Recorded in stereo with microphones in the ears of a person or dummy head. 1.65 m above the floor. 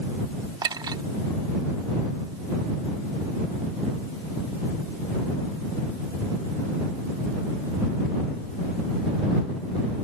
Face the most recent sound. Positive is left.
turn(degrees=-20)  # may be behind; listen again after turning